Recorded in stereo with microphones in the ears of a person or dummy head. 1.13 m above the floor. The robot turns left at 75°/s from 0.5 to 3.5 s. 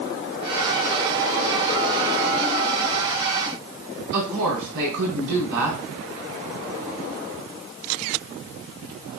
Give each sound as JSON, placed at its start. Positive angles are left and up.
{"t": 4.1, "sound": "a woman speaking", "side_deg": -75, "distance_m": 4.5}